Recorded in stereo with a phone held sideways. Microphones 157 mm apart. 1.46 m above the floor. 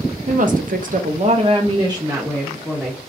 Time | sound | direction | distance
0.3 | a woman speaking | 55° right (ahead or behind) | 0.7 m